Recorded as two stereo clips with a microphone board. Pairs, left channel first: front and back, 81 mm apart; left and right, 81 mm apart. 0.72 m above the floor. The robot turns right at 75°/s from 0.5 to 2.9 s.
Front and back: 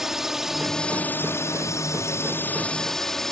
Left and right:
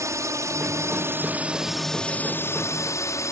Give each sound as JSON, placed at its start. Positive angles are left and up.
{"t": 0.0, "sound": "a drone", "azimuth_deg": -95}